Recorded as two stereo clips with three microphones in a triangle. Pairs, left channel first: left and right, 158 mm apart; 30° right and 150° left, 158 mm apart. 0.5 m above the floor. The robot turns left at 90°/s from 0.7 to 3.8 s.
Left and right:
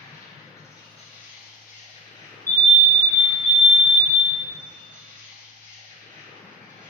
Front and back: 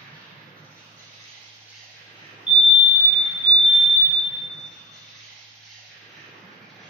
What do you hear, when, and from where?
0.0 s an insect: 160° left, 1.3 m; by 6.9 s 120° right, 1.3 m
2.5 s a fire alarm: 85° left, 1.6 m; by 4.2 s 35° right, 1.6 m